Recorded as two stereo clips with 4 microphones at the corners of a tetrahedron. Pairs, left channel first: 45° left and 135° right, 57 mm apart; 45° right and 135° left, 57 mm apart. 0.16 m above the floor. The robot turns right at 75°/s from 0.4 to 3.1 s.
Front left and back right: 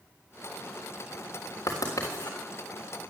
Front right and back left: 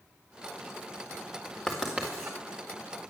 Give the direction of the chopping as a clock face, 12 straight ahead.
I don't hear chopping.